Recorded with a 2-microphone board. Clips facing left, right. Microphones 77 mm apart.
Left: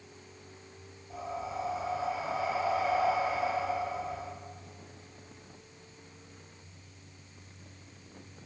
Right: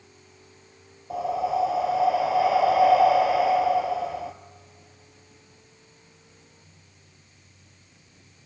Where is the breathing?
80° right, 1.3 m.